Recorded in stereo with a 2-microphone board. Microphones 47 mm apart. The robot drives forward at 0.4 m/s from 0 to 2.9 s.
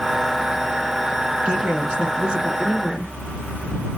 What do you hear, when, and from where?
1.4 s a woman speaking: 25° right (ahead or behind), 1.1 m; by 3.1 s 20° right (ahead or behind), 1.3 m